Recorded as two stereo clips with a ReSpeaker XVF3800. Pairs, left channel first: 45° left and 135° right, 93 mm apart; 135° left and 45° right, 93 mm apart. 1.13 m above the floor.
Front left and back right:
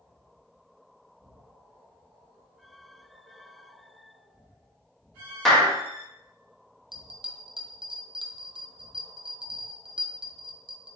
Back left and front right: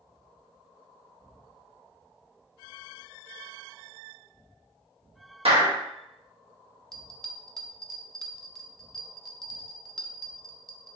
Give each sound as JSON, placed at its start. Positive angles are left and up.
{"t": 5.5, "sound": "a clap", "azimuth_deg": -45, "distance_m": 1.2}
{"t": 6.9, "sound": "a bell", "azimuth_deg": -140, "distance_m": 0.5}